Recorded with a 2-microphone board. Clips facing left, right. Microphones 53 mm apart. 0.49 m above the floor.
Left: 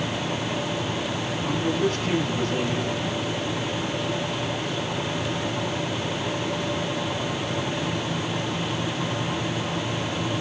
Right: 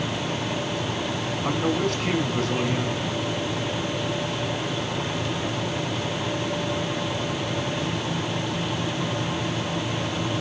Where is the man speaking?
80° right, 5 m.